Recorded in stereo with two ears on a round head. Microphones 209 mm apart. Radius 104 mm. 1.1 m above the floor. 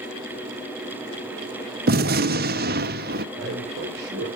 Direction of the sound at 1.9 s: 40° right (ahead or behind).